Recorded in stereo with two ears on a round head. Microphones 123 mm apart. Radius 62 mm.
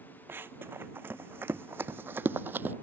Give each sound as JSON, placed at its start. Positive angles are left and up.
{"t": 0.3, "sound": "running footsteps", "side_deg": -15}